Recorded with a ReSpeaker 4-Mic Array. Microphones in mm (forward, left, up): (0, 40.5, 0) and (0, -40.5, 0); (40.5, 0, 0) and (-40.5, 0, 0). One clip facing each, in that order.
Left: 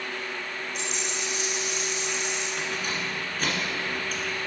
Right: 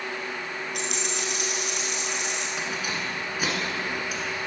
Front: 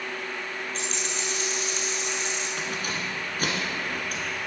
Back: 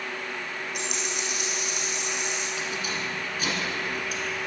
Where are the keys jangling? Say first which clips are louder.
Even, even; 10° right, 1.5 m.